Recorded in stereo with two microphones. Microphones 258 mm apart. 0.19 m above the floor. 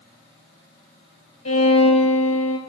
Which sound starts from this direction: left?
A violin, at 1.4 s.